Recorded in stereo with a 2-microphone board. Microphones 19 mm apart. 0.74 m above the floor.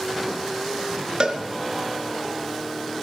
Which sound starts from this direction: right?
A cowbell, at 1.2 s.